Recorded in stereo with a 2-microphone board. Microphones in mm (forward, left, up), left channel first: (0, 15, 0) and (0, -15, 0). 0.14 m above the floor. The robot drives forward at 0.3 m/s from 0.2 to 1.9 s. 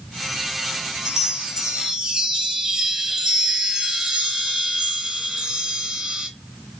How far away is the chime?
About 1.6 m.